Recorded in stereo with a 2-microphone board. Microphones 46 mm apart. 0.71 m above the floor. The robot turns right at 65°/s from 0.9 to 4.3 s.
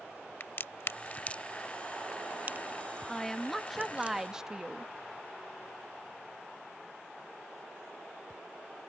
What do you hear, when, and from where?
0.4 s a crack: 55° left (ahead or behind); by 4.1 s 30° right (ahead or behind)
3.1 s a woman speaking: 10° left (ahead or behind); by 4.9 s 15° right (ahead or behind)